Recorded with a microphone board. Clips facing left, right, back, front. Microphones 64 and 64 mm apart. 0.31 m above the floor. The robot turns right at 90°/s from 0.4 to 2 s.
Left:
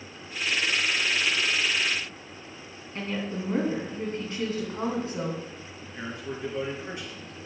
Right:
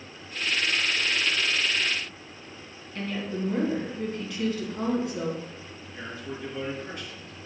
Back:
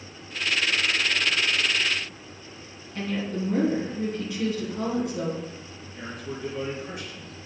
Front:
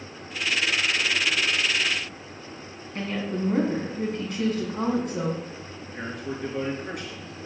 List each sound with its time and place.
3.0 s a woman speaking: 35° left, 3.5 m
5.8 s a man speaking: 20° left, 4 m